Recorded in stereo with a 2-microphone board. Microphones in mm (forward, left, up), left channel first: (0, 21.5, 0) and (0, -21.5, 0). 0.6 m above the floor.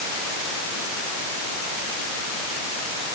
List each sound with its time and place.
Only background noise.